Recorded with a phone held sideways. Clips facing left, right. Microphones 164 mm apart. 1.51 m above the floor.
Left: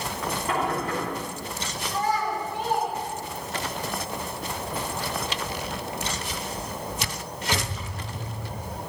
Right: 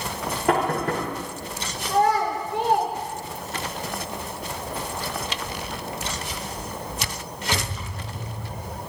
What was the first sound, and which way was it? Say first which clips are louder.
Knocking: right 6 dB; 85° right.